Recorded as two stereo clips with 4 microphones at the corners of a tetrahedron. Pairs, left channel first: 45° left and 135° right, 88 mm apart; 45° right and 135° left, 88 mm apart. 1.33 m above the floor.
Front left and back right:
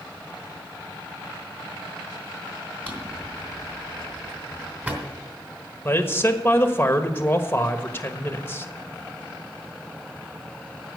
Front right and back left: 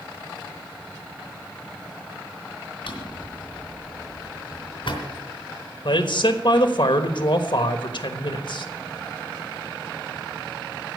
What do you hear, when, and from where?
2.9 s a drawer: 65° right, 3 m
5.8 s a man speaking: 20° right, 1.3 m